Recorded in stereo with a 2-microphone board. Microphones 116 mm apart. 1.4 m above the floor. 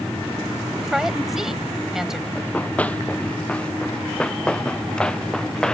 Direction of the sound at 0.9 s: 5° right (ahead or behind).